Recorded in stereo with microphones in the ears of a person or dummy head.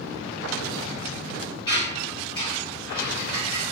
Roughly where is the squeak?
Centre.